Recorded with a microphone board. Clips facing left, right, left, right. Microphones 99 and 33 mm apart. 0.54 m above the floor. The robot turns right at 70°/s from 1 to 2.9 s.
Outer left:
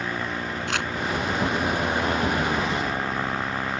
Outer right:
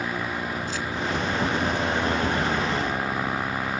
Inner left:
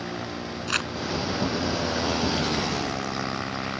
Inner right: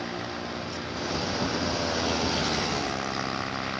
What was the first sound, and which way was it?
Crumpling, 70° left (ahead or behind).